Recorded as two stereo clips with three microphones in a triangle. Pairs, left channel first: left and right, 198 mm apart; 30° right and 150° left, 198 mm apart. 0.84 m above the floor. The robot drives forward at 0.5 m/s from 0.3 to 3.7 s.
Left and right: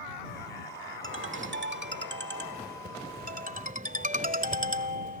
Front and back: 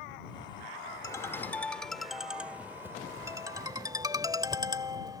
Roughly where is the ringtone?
Right.